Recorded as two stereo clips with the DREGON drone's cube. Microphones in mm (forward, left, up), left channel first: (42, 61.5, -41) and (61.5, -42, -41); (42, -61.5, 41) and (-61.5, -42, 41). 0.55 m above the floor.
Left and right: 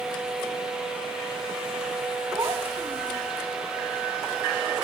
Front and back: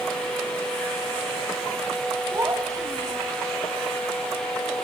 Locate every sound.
2.3 s a child speaking: 130° right, 2.0 m